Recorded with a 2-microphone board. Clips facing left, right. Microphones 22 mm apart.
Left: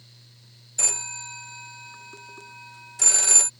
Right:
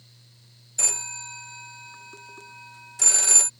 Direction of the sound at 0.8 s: 10° left (ahead or behind).